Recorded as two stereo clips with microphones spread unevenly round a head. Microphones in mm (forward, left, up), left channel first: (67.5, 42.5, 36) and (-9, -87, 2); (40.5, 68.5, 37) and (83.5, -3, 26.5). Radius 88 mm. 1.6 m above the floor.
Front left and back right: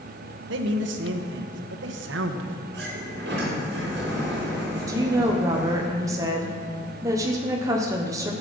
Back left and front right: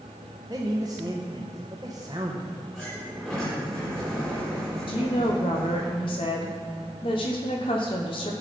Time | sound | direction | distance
0.5 | a man speaking | 130° right | 1.1 m
2.7 | a sliding door | 155° right | 3.5 m
4.9 | a woman speaking | 165° left | 1.1 m